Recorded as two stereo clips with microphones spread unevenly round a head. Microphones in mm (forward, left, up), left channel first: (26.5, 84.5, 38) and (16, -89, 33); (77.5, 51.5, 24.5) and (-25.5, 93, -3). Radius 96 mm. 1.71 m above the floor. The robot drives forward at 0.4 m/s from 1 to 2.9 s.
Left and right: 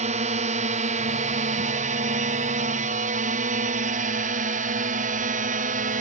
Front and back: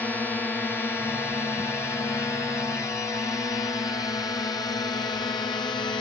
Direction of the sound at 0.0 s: 110° right.